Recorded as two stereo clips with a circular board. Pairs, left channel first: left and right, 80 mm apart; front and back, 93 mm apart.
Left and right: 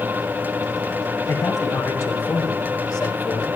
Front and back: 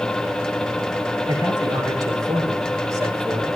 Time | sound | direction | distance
1.3 | a man speaking | 140° left | 6 m